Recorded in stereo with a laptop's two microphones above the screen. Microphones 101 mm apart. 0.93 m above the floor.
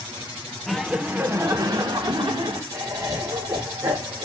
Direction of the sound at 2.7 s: 45° right (ahead or behind).